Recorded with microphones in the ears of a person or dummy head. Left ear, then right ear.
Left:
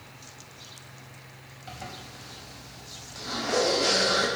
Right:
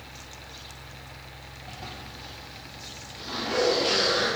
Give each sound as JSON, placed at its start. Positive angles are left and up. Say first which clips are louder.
{"t": 0.0, "sound": "a fan", "louder": "right 4 dB", "side_deg": -30, "distance_m": 1.0}
{"t": 1.7, "sound": "a zipper", "louder": "left 1 dB", "side_deg": 80, "distance_m": 4.5}